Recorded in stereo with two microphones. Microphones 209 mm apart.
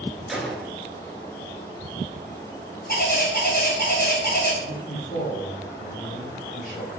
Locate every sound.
0.3 s a gunshot: centre (ahead or behind), 0.6 m
2.9 s a bird: 50° left (ahead or behind), 1.7 m
4.6 s a man speaking: 45° left (ahead or behind), 2.0 m